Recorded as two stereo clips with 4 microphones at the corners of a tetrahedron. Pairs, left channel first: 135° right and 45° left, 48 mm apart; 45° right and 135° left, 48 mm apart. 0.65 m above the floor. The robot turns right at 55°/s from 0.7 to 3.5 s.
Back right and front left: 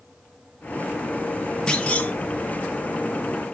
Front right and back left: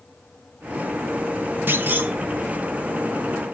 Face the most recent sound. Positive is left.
turn(degrees=-105)